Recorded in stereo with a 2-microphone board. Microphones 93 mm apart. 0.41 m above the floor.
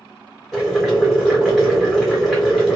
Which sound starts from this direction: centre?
Boiling, at 0.5 s.